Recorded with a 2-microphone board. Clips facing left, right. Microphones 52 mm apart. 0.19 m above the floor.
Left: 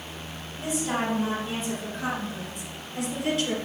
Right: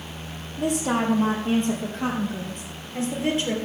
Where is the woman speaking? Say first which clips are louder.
Right 4 dB; 75° right (ahead or behind), 5.5 m; by 3.5 s 25° right (ahead or behind), 3 m.